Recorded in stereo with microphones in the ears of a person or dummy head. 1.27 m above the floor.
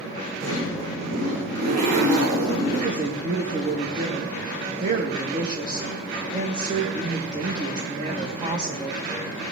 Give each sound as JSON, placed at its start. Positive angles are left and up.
{"t": 0.4, "sound": "a zipper", "side_deg": -50, "distance_m": 8.0}
{"t": 2.7, "sound": "a woman speaking", "side_deg": -25, "distance_m": 2.5}